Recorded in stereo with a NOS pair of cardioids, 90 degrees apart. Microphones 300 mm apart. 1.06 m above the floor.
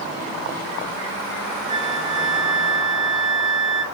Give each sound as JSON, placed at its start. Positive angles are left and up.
{"t": 1.7, "sound": "a flute", "azimuth_deg": -40, "distance_m": 1.8}